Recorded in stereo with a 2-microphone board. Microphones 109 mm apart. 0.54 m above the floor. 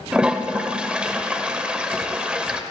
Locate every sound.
0.1 s a toilet flushing: 10° right (ahead or behind), 0.6 m